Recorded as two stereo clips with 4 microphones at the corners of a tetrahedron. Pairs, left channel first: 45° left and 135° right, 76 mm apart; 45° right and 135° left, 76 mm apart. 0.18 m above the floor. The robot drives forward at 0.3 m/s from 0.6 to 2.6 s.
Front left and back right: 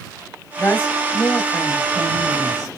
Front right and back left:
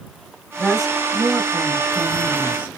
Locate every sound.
0.6 s a woman speaking: 45° left, 1.3 m; by 2.7 s 120° left, 1.3 m